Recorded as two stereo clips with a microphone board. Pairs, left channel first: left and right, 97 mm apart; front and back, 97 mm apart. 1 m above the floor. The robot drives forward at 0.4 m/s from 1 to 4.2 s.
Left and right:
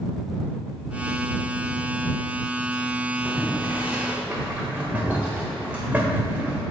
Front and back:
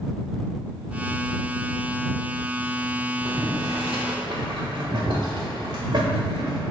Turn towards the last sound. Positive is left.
turn(degrees=-160)